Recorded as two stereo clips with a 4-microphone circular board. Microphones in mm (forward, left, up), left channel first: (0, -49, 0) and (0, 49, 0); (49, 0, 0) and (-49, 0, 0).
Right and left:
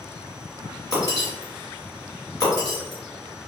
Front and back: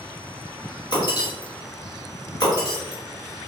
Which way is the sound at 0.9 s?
35° right.